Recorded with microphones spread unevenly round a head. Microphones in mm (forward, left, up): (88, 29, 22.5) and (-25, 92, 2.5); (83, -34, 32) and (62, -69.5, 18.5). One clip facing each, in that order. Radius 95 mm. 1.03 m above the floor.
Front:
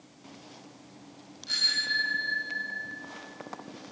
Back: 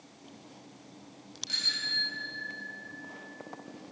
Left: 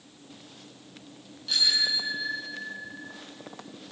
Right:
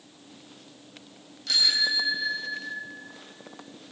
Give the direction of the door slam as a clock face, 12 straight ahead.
No door slam in this recording.